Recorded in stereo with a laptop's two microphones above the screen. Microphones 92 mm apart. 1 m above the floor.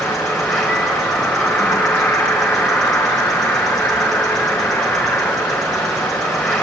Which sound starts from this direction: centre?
An insect, at 0.0 s.